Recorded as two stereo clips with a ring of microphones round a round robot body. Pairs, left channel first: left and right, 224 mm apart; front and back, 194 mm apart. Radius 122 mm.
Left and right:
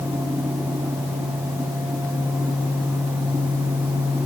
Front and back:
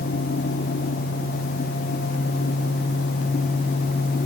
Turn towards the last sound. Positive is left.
No sound to turn to.